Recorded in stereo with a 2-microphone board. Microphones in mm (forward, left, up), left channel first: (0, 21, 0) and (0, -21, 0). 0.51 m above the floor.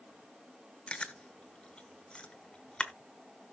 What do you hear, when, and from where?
0.9 s chewing: 25° left (ahead or behind), 1.1 m